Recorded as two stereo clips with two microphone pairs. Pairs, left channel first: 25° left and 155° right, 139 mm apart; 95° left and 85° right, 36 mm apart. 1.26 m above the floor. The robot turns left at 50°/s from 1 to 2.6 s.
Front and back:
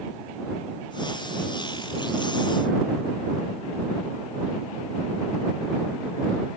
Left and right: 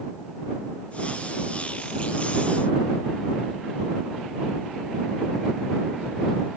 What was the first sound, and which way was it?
Only background noise.